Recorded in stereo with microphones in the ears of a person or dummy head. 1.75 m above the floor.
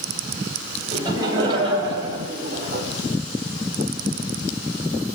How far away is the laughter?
About 3.5 m.